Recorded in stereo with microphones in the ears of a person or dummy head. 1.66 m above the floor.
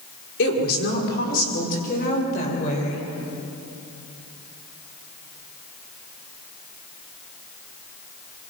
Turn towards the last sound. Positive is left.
turn(degrees=40)  # may be behind; listen again after turning